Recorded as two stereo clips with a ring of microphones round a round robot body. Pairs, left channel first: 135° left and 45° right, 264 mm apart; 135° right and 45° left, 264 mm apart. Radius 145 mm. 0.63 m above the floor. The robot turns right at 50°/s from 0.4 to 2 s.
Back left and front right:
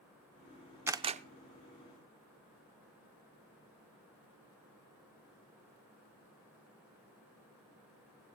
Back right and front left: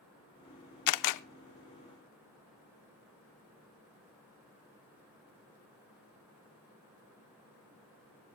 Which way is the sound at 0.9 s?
125° right.